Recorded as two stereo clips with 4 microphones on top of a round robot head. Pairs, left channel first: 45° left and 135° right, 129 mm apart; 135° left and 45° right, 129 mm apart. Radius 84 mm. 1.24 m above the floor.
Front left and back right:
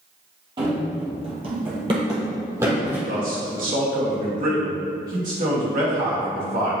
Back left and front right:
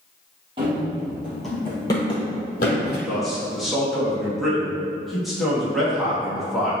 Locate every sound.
0.6 s running footsteps: 90° right, 1.7 m; by 3.0 s 150° left, 2.0 m
3.1 s a man speaking: 130° right, 2 m